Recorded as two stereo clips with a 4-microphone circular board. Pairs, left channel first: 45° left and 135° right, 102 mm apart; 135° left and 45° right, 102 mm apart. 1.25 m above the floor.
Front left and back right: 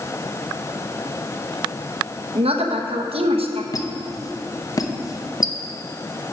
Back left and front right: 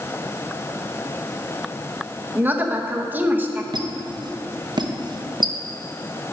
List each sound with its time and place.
2.4 s a woman speaking: 115° right, 0.9 m
3.7 s a squeak: 5° right, 0.7 m